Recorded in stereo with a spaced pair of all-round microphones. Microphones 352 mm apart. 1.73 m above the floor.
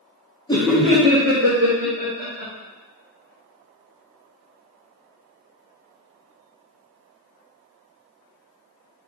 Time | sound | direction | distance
0.5 | laughter | 15° left (ahead or behind) | 0.7 m